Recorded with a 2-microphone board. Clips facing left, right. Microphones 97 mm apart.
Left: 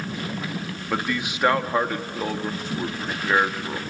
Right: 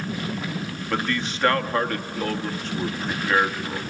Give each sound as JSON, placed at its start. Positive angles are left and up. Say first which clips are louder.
{"t": 0.9, "sound": "a man speaking", "louder": "even", "side_deg": 10, "distance_m": 1.1}